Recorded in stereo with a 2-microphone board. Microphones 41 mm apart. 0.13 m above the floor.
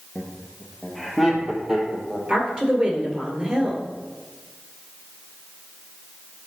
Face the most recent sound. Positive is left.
turn(degrees=-25)  # may be behind; listen again after turning